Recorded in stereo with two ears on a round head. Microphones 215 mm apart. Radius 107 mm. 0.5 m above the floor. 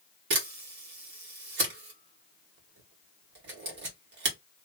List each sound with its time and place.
0.3 s a camera shutter: 45° right (ahead or behind), 1.6 m